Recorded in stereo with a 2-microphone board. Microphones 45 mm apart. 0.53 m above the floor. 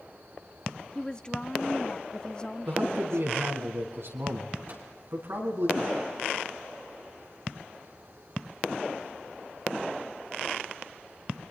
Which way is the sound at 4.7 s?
50° right (ahead or behind).